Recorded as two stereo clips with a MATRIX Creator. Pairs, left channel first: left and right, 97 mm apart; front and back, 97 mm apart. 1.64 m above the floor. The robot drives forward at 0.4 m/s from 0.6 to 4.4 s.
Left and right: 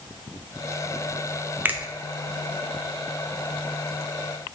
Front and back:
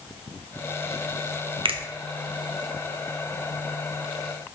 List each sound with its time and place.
1.6 s a finger snap: 160° right, 0.7 m